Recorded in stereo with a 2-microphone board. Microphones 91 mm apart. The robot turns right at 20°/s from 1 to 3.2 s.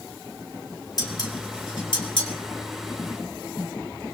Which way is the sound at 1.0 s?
50° left (ahead or behind).